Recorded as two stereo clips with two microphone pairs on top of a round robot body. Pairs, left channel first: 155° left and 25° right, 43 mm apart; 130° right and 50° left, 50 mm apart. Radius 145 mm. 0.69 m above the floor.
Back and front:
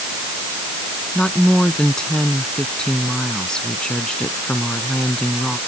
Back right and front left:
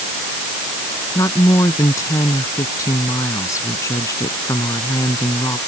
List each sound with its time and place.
1.1 s a woman speaking: 130° right